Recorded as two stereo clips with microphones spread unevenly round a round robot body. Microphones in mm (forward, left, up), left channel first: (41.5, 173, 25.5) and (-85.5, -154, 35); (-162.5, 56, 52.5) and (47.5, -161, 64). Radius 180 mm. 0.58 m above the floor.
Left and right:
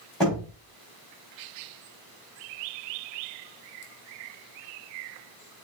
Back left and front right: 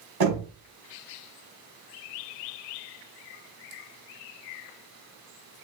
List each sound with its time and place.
0.2 s knocking: 20° right, 5 m